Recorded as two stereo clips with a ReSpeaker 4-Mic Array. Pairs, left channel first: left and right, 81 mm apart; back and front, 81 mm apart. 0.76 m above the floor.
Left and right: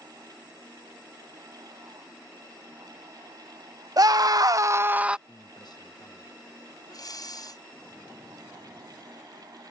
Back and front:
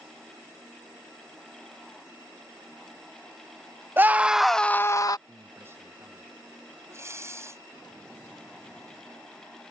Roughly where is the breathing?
Ahead left.